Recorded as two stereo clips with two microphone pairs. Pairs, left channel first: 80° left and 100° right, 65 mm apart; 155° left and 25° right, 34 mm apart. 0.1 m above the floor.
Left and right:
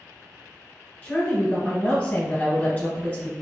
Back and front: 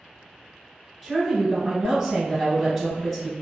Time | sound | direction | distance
1.0 | a woman speaking | 60° left | 1.2 m